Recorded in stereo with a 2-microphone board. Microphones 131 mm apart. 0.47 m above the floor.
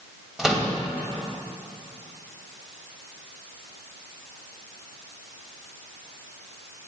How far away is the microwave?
About 1.9 m.